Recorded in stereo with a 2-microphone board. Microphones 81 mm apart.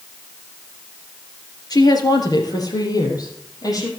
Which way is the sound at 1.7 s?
50° left (ahead or behind).